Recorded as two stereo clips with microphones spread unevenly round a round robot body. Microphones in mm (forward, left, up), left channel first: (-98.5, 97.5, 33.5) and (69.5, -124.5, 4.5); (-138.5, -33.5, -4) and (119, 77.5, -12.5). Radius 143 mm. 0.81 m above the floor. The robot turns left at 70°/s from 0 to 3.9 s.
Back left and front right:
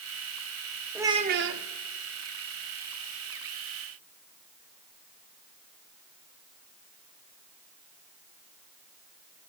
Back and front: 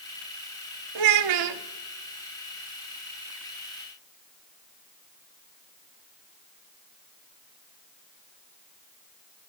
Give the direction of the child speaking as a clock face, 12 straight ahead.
11 o'clock.